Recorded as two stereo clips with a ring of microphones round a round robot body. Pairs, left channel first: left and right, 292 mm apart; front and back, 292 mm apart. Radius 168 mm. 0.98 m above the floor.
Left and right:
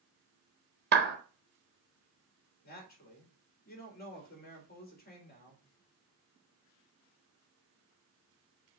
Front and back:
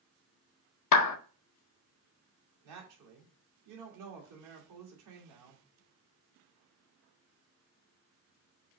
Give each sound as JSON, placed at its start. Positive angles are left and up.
{"t": 0.9, "sound": "a clap", "azimuth_deg": -30, "distance_m": 0.9}
{"t": 2.6, "sound": "a woman speaking", "azimuth_deg": 150, "distance_m": 3.0}